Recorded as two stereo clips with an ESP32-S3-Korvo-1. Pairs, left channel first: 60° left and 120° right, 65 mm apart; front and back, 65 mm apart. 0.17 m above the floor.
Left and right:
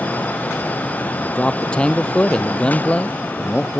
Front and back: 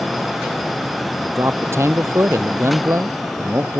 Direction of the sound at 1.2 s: 135° left.